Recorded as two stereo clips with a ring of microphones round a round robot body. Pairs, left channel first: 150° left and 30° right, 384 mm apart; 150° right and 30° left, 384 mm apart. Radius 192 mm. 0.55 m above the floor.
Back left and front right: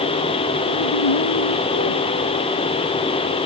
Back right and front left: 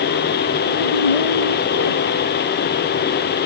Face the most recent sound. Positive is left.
turn(degrees=-165)